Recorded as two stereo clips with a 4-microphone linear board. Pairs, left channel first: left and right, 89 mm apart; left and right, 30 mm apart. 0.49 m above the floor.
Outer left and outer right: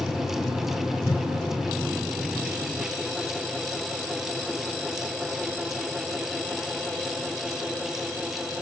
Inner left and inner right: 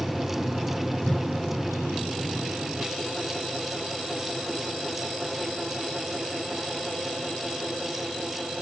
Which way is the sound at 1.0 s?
45° left (ahead or behind).